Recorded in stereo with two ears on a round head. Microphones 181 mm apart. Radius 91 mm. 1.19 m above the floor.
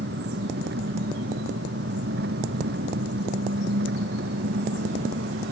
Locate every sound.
0.0 s an engine running: 50° right (ahead or behind)